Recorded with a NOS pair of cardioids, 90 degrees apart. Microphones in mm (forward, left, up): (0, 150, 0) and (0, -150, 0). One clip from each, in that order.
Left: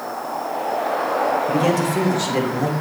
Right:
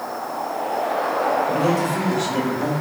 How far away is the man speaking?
About 3 m.